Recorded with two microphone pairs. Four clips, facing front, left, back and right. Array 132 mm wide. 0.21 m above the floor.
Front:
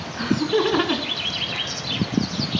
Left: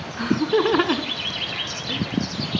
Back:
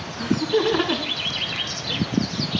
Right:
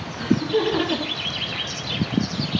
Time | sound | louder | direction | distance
0.2 | laughter | left 1 dB, even | 60° left | 2.5 m